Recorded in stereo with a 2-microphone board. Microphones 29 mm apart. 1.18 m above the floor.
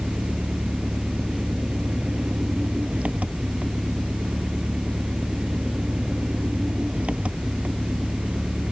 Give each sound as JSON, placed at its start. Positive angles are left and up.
{"t": 0.0, "sound": "an engine running", "side_deg": -45}